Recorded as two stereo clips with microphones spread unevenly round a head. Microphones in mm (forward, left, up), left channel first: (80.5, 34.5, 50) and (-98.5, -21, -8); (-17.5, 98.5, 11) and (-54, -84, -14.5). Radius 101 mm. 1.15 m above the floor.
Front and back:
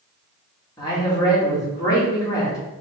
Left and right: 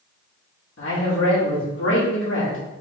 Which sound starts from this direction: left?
A man speaking, at 0.8 s.